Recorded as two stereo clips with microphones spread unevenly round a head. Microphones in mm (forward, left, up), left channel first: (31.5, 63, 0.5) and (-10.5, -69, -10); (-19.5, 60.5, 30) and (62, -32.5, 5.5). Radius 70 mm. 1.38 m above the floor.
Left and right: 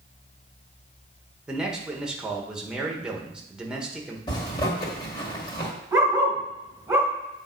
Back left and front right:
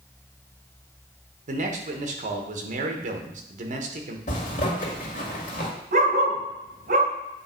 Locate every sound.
1.5 s a man speaking: 20° right, 1.3 m
4.3 s a zipper: 130° left, 2.0 m
5.9 s a dog barking: 20° right, 2.0 m